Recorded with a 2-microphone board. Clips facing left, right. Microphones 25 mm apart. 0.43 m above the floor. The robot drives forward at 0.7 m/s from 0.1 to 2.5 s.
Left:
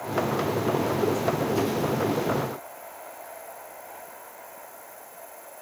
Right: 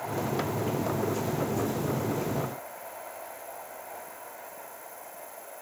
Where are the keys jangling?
No keys jangling in this recording.